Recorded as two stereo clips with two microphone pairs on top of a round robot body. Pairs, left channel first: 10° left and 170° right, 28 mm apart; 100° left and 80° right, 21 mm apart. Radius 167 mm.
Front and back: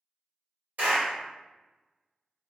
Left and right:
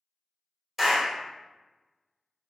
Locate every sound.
0.8 s a clap: 155° right, 1.8 m